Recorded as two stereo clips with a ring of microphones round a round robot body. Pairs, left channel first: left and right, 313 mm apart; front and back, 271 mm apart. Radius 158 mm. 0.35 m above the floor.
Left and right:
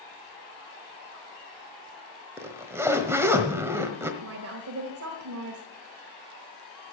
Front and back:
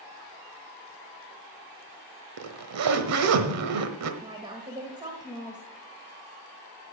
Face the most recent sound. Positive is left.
turn(degrees=-110)